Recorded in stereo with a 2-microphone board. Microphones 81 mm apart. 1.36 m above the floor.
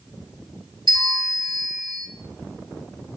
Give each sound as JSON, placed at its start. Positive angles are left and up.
{"t": 0.9, "sound": "a bell", "side_deg": -70, "distance_m": 1.3}